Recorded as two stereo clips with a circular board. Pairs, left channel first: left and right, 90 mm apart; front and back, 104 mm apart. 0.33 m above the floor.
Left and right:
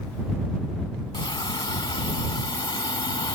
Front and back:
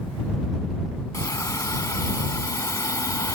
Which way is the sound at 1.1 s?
55° left.